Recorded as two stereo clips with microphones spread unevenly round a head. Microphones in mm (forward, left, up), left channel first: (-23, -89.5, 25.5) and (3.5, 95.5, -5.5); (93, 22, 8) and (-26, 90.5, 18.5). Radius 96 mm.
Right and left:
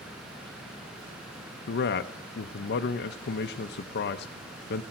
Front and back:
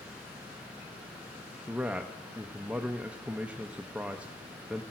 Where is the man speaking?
125° right, 0.5 m.